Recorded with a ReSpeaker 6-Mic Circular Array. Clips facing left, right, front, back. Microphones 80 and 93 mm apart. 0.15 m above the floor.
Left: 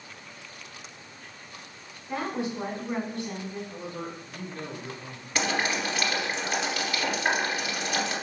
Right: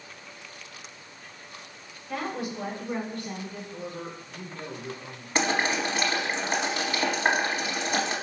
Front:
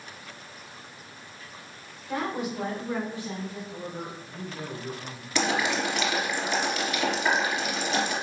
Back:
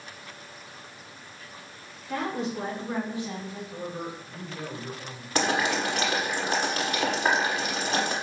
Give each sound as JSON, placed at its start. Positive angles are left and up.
{"t": 2.1, "sound": "a woman speaking", "azimuth_deg": 50, "distance_m": 1.2}
{"t": 3.7, "sound": "a man speaking", "azimuth_deg": 60, "distance_m": 2.0}
{"t": 5.3, "sound": "boiling", "azimuth_deg": -145, "distance_m": 1.2}